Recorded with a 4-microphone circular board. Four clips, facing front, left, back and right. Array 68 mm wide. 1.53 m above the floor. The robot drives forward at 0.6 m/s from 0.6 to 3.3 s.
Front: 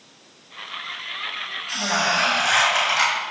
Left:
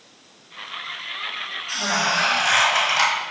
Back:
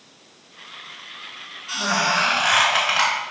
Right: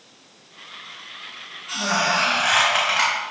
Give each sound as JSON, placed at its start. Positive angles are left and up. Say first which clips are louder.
{"t": 1.7, "sound": "a squeak", "louder": "right 1 dB, back 1 dB", "azimuth_deg": -145, "distance_m": 2.5}